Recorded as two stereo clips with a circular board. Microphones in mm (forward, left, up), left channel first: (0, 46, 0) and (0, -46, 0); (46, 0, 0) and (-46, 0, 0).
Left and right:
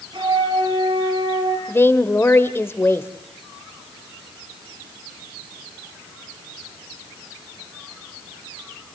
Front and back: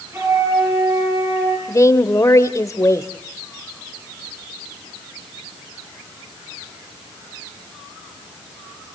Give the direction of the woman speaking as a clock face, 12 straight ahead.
11 o'clock.